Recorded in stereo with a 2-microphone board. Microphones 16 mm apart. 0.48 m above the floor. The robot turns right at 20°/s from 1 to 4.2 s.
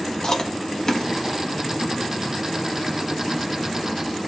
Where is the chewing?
30° left (ahead or behind), 0.8 m; by 1.1 s 35° left (ahead or behind), 0.8 m.